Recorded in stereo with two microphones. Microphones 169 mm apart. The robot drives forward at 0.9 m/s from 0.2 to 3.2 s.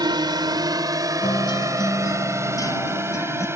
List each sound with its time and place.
0.0 s a drone: 25° right (ahead or behind); by 3.6 s 15° right (ahead or behind)
1.2 s a guitar: 30° left (ahead or behind); by 3.5 s 20° left (ahead or behind)